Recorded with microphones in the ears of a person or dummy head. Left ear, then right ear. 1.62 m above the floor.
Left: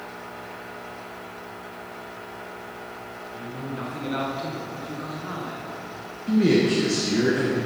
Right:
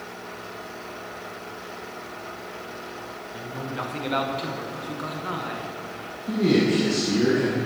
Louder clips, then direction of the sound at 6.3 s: Left 1 dB; 45° left (ahead or behind).